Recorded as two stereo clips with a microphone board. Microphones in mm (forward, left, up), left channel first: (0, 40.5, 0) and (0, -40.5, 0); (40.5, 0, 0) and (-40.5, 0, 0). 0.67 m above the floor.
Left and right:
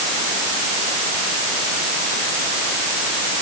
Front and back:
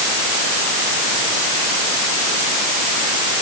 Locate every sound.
Only background noise.